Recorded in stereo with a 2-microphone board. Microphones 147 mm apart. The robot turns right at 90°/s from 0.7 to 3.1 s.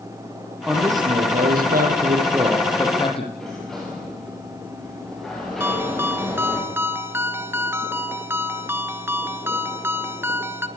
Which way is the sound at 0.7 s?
175° right.